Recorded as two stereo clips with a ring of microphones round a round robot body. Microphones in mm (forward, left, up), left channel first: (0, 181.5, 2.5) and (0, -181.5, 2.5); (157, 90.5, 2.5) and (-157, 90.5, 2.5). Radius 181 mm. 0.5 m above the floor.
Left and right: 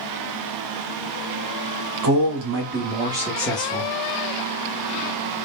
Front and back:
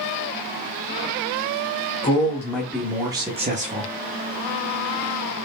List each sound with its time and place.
2.0 s a man speaking: 75° right, 1.0 m; by 3.9 s 140° left, 0.8 m